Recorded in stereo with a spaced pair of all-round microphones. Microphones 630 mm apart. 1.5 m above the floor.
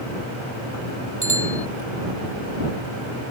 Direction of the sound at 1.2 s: 25° left (ahead or behind).